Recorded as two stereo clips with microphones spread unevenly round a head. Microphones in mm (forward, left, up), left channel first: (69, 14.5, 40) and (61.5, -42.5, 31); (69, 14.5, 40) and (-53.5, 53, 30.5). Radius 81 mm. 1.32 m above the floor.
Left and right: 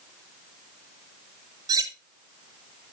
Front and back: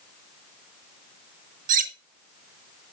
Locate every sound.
1.7 s cutlery clinking: 155° right, 0.9 m